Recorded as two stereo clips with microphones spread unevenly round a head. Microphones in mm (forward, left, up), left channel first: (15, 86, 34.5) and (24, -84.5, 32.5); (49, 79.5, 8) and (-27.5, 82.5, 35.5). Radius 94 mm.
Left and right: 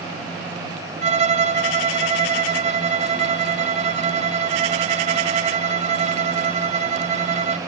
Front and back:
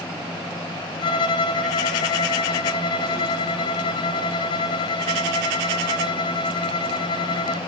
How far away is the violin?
About 0.6 m.